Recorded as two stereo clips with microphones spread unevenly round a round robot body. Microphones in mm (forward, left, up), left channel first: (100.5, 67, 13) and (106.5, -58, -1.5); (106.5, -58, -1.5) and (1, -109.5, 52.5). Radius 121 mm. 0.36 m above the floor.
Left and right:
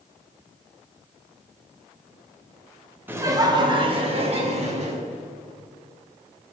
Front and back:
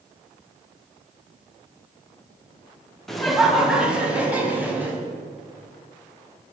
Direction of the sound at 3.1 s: 30° right.